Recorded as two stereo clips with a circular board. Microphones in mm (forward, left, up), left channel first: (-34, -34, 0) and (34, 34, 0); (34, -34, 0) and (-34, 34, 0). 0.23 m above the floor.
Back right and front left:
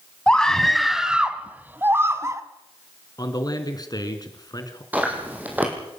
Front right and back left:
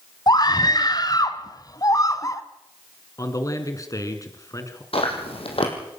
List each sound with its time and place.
0.3 s a scream: 60° right, 1.7 m; by 2.4 s straight ahead, 1.9 m
3.2 s a man speaking: 95° right, 3 m
4.9 s chewing: 30° right, 5 m